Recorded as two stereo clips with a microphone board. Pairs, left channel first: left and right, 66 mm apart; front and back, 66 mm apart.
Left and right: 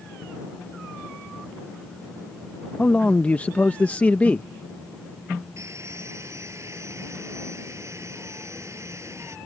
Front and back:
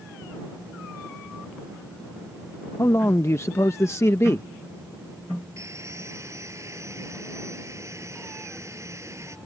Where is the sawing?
135° right.